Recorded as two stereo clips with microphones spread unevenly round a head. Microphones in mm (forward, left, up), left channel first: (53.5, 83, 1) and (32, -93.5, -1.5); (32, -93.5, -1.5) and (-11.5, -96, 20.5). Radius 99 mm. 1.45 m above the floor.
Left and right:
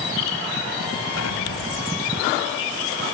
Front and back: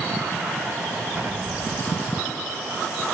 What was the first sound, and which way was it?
An explosion, 105° left.